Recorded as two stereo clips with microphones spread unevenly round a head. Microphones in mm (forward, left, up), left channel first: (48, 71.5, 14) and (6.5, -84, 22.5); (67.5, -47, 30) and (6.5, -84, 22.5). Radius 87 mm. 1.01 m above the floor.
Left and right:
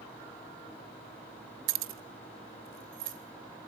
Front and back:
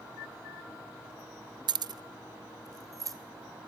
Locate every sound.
1.7 s keys jangling: 130° right, 0.5 m; by 3.2 s 110° right, 1.9 m